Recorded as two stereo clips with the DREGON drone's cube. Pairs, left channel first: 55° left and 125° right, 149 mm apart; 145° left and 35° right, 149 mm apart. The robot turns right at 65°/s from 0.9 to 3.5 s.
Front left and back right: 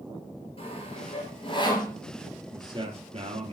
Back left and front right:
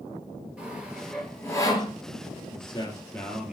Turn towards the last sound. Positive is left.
turn(degrees=-115)